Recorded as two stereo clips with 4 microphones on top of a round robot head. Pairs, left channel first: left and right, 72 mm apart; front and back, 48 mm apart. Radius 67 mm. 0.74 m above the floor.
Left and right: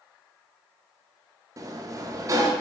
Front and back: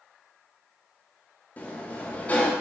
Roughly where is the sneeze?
I don't hear a sneeze.